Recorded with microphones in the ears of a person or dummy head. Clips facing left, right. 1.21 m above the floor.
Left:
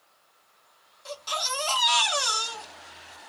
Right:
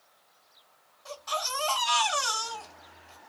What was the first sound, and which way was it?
A baby crying, 35° left (ahead or behind).